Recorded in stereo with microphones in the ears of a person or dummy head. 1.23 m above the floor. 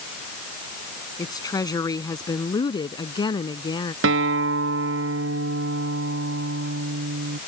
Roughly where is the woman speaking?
Centre.